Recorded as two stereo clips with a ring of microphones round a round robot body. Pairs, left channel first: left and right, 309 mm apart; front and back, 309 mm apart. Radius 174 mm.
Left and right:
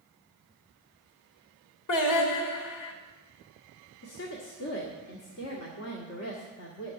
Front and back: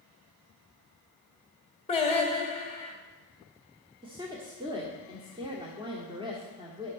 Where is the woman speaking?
110° left, 1.4 m.